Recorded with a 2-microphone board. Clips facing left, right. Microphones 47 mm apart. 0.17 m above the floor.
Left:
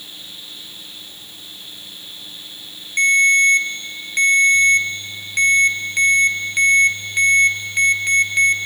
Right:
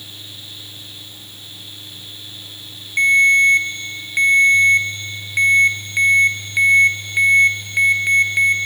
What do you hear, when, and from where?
3.0 s a ringtone: 10° right (ahead or behind), 2.5 m